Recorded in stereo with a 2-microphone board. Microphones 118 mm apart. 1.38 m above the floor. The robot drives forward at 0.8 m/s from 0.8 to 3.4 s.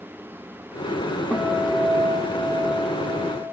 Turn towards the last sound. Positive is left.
turn(degrees=-5)  # may be behind; listen again after turning